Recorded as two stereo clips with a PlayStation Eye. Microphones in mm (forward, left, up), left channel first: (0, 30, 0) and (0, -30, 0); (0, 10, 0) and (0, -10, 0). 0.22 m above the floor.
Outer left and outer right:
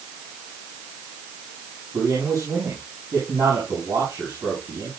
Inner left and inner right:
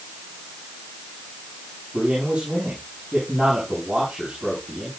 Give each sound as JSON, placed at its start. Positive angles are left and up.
{"t": 1.9, "sound": "a man speaking", "side_deg": -80, "distance_m": 7.0}